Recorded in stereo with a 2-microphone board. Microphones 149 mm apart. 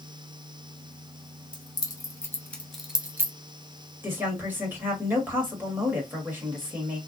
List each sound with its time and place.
1.5 s keys jangling: 30° left (ahead or behind), 1.0 m; by 3.3 s 20° right (ahead or behind), 0.7 m
4.0 s a woman speaking: 15° right (ahead or behind), 1.7 m